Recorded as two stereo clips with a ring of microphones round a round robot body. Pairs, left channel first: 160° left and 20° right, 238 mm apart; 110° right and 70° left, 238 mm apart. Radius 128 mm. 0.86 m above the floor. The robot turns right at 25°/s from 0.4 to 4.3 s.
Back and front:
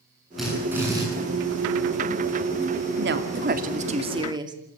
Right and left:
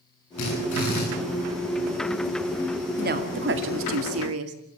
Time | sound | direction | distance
0.4 | a drill | 115° right | 10 m
3.0 | a woman speaking | 15° left | 2 m